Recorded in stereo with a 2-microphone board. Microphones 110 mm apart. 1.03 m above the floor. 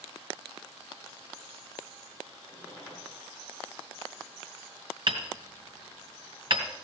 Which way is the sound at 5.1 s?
50° right (ahead or behind).